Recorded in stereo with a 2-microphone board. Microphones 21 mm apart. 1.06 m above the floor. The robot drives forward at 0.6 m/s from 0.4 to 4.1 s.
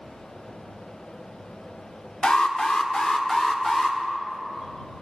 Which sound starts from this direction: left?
An alarm, at 2.2 s.